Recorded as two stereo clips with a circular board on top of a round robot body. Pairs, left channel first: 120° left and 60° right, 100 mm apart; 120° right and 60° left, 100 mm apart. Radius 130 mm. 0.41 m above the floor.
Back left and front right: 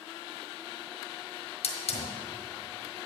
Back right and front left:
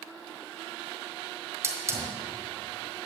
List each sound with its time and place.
1.6 s a hiss: 120° left, 1.4 m